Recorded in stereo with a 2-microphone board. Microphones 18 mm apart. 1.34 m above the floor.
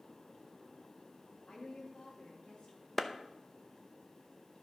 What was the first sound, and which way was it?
A woman speaking, 65° left (ahead or behind).